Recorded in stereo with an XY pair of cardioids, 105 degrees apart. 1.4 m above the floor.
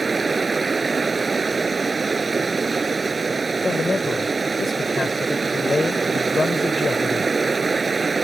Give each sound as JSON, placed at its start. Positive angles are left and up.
{"t": 0.0, "sound": "running water", "azimuth_deg": -25}
{"t": 3.6, "sound": "a man speaking", "azimuth_deg": 30}